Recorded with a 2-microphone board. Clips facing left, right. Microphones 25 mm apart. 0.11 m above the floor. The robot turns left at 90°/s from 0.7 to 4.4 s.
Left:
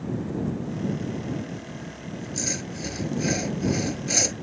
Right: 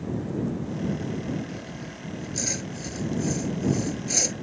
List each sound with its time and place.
1.5 s sawing: 95° right; by 4.3 s 10° left